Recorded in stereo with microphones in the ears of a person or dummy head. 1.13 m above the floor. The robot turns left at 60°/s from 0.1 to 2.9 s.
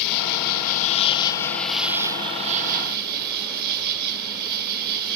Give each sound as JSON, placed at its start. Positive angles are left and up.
{"t": 0.0, "sound": "an insect", "azimuth_deg": 95, "distance_m": 1.4}